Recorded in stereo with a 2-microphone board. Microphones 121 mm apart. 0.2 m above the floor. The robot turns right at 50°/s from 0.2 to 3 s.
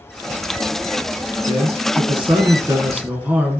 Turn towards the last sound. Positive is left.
turn(degrees=-15)